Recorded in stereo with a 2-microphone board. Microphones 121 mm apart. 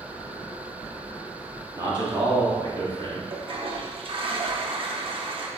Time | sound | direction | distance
1.7 | a man speaking | 35° right (ahead or behind) | 1.3 m
3.3 | a toilet flushing | 50° right (ahead or behind) | 0.5 m